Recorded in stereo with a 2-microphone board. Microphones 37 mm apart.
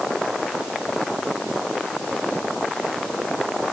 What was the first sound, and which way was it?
Only background noise.